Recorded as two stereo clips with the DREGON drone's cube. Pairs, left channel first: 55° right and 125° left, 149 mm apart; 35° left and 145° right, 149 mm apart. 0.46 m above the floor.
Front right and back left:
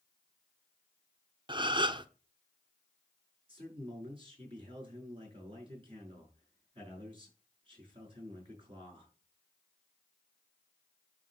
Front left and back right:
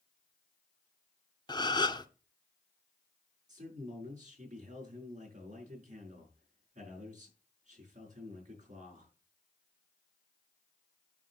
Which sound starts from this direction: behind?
A man speaking, at 3.5 s.